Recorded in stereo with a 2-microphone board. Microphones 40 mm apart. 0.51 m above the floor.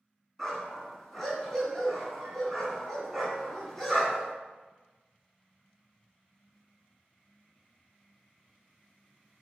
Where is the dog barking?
15° left (ahead or behind), 1.5 m.